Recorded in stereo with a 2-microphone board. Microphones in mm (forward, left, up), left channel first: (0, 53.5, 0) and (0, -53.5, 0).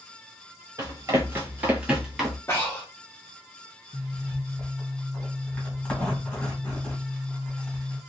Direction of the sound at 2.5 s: 25° left (ahead or behind).